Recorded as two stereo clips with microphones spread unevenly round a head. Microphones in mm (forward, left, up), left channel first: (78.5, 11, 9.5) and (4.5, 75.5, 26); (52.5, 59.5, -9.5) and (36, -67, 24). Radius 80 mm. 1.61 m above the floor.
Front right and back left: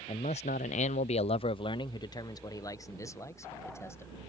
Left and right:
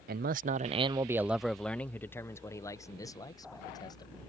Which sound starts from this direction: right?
A man speaking, at 0.1 s.